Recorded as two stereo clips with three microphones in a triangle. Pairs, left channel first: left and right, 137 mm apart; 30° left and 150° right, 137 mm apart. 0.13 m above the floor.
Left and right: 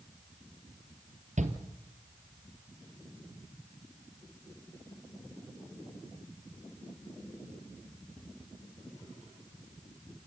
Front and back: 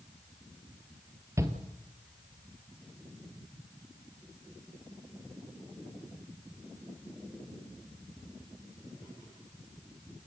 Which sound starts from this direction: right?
A shout, at 1.4 s.